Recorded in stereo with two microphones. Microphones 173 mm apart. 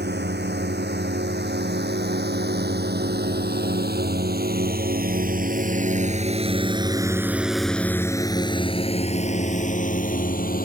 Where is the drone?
80° right; by 10.7 s 55° left (ahead or behind).